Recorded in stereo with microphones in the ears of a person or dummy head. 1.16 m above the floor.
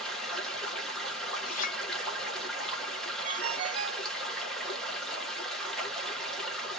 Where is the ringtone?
35° right (ahead or behind), 0.5 m.